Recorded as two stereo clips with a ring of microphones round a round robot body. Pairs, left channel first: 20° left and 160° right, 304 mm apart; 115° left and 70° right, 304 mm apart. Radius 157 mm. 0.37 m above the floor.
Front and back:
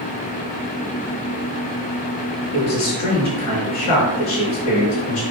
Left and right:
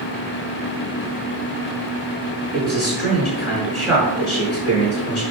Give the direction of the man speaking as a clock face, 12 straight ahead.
11 o'clock.